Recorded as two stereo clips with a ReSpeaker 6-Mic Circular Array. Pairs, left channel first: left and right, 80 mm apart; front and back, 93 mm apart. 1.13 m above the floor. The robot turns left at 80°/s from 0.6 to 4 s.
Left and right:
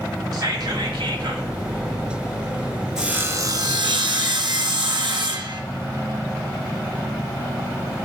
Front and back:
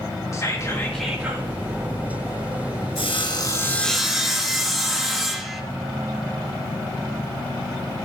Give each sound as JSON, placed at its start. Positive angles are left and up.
{"t": 0.3, "sound": "whispering", "azimuth_deg": -55, "distance_m": 1.7}
{"t": 3.0, "sound": "sawing", "azimuth_deg": -10, "distance_m": 0.9}